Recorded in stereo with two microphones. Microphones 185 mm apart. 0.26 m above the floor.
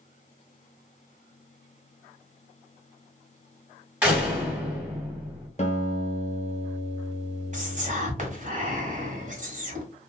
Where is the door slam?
5° right (ahead or behind), 1.6 m.